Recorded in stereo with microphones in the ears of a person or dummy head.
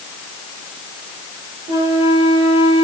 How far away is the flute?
About 8.5 m.